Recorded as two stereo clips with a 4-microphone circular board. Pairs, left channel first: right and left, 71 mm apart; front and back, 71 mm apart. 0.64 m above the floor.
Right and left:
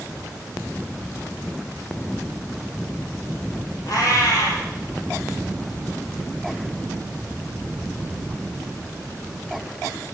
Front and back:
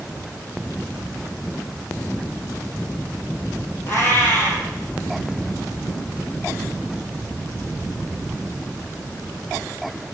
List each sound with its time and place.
3.9 s a cat meowing: 55° right, 3 m